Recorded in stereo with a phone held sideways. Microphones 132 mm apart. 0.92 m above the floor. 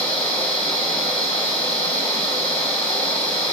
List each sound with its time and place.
0.0 s a machine running: 45° left (ahead or behind), 1.3 m